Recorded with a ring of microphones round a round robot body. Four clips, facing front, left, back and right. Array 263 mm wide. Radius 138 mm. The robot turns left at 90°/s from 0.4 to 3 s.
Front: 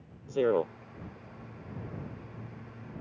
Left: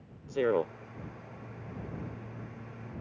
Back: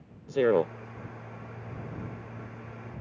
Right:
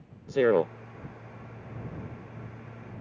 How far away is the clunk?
I don't hear a clunk.